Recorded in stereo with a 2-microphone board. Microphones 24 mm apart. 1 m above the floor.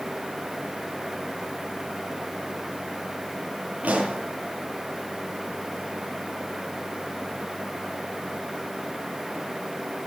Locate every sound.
3.8 s a pop: 75° right (ahead or behind), 7.5 m